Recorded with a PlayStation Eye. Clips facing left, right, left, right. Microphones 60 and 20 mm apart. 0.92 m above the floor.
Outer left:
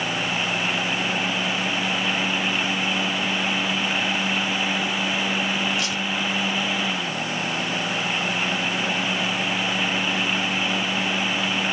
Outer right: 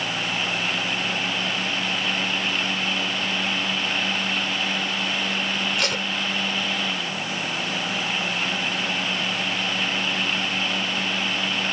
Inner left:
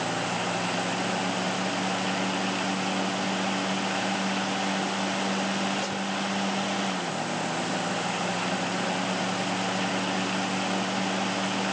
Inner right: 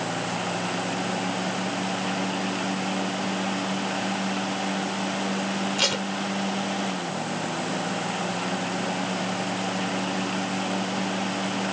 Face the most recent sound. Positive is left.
turn(degrees=-65)  # may be behind; listen again after turning